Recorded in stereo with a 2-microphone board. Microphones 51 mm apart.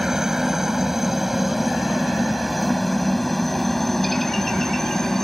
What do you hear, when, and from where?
0.0 s a helicopter: 10° right (ahead or behind); by 5.2 s 5° left (ahead or behind)